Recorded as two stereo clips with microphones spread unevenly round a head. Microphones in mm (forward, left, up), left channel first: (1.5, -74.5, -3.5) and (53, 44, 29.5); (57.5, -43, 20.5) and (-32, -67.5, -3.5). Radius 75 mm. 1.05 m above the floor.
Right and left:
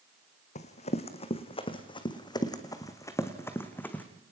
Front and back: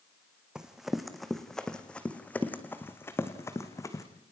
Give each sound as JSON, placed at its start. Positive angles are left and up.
{"t": 0.6, "sound": "running footsteps", "azimuth_deg": -75, "distance_m": 2.5}